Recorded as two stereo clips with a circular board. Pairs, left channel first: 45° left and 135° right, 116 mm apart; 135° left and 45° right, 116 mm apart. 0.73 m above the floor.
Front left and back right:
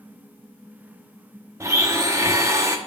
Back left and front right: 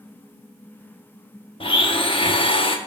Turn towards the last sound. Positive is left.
turn(degrees=165)